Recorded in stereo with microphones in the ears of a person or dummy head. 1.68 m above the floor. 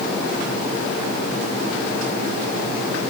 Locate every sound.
Only background noise.